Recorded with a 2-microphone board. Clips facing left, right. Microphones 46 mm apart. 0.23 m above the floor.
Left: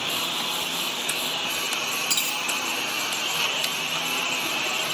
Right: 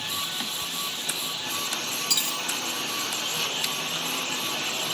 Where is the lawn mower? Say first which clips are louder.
Left 4 dB; 55° left (ahead or behind); by 5.0 s 50° left (ahead or behind).